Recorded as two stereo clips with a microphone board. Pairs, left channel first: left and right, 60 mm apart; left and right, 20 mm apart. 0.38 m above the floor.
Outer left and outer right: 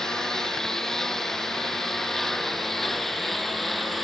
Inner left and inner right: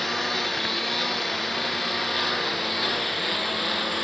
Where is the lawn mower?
10° left (ahead or behind); by 4.0 s centre (ahead or behind).